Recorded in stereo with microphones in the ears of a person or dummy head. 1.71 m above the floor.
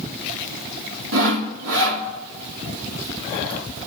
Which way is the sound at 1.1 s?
75° right (ahead or behind).